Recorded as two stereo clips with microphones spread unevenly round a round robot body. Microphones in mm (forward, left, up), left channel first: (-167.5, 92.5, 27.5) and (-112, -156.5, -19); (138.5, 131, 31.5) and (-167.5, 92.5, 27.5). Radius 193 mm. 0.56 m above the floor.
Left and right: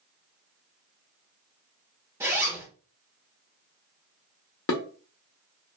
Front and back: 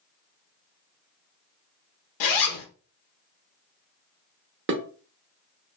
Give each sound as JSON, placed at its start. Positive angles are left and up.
{"t": 2.2, "sound": "a zipper", "azimuth_deg": 0, "distance_m": 0.6}
{"t": 4.7, "sound": "dishes clattering", "azimuth_deg": 135, "distance_m": 0.7}